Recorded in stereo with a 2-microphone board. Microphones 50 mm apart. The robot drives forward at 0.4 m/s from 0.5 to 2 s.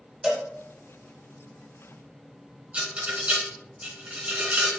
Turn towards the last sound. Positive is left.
turn(degrees=-30)  # may be behind; listen again after turning